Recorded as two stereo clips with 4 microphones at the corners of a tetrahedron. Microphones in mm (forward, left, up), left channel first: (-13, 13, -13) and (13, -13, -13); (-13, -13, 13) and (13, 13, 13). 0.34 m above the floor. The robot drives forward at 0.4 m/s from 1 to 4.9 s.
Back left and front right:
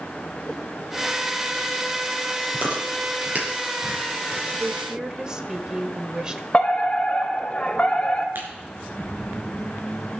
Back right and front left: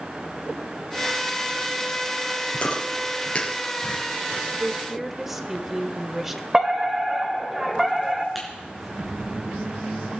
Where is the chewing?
80° right, 5.5 m; by 4.4 s 85° right, 5.5 m.